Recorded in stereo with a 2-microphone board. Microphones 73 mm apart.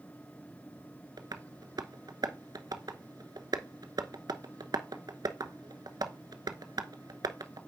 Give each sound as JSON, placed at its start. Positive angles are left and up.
{"t": 1.2, "sound": "tapping", "side_deg": -65, "distance_m": 0.8}